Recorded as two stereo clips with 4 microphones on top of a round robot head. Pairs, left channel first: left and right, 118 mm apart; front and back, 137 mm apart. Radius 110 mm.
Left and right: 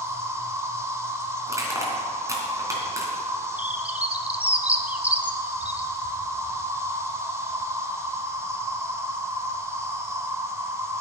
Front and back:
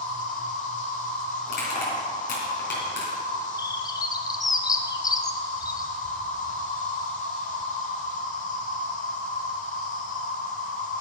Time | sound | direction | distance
0.0 | an insect | 25° right | 1.5 m
1.5 | crushing | 30° right | 3 m
3.6 | a bird | 25° right | 0.9 m